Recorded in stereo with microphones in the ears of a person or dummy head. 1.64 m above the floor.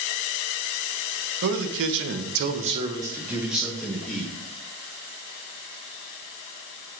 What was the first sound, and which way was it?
A man speaking, 60° right (ahead or behind).